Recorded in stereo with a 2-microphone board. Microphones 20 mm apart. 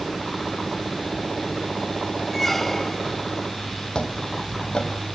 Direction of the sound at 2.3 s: 10° left (ahead or behind).